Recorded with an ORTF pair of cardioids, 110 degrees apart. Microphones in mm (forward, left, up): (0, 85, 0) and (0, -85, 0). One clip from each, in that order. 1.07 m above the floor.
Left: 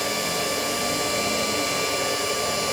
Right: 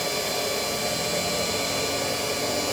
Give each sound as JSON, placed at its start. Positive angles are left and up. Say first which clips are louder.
{"t": 0.0, "sound": "a machine running", "louder": "left 1 dB", "azimuth_deg": 10, "distance_m": 5.0}